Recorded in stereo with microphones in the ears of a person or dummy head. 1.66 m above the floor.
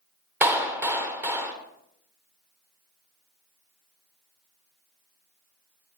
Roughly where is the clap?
Centre.